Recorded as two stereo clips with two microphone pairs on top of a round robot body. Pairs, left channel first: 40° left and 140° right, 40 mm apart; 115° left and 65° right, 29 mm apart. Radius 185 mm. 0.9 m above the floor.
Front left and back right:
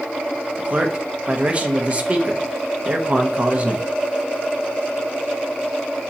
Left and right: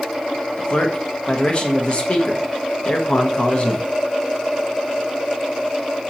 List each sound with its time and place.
0.6 s a man speaking: 165° left, 0.8 m